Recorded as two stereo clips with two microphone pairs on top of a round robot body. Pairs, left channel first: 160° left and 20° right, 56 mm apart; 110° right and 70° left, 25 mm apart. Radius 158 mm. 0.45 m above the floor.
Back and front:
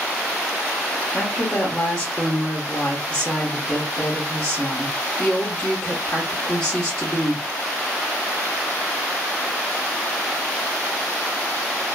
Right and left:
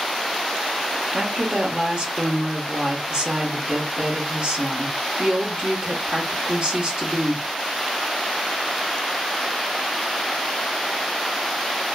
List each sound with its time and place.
1.1 s a woman speaking: 90° left, 1.2 m